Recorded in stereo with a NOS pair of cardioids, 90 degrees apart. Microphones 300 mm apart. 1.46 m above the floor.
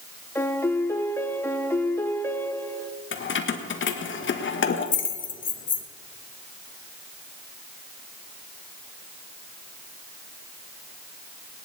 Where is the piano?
10° left, 1.1 m.